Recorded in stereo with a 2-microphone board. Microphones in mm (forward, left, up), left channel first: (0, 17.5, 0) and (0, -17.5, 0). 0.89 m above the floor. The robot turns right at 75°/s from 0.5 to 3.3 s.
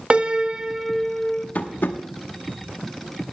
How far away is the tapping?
About 1.1 m.